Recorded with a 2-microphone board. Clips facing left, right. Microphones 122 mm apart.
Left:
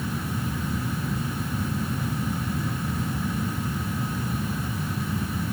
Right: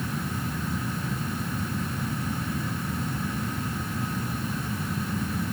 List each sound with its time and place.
Only background noise.